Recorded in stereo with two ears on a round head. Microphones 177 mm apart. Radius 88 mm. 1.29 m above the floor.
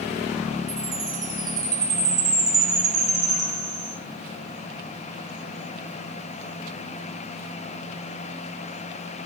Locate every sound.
0.7 s a chime: 20° right (ahead or behind), 4 m